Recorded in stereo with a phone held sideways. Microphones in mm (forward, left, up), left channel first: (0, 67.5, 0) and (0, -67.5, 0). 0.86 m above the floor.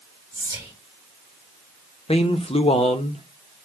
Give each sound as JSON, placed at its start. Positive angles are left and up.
{"t": 0.3, "sound": "whispering", "side_deg": -25, "distance_m": 1.9}
{"t": 2.1, "sound": "a man speaking", "side_deg": 45, "distance_m": 0.8}